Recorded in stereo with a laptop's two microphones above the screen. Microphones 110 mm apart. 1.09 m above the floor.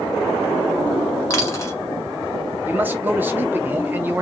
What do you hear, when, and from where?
1.3 s a dropped coin: 25° left (ahead or behind), 1.1 m
2.6 s a man speaking: 15° right (ahead or behind), 1.0 m